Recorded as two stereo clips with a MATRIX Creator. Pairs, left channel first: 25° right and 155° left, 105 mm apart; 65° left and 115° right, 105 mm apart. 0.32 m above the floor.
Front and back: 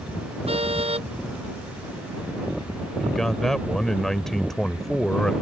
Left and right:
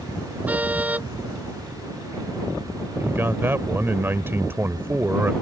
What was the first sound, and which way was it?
A car horn, 170° left.